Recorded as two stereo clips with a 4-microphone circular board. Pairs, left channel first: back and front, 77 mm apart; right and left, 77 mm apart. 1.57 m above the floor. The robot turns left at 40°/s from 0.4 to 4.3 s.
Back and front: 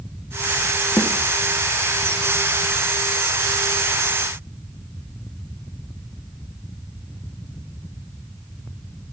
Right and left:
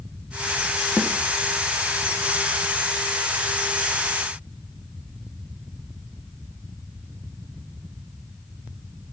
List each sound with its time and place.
1.0 s a snare drum: straight behind, 0.6 m; by 1.2 s 170° left, 0.6 m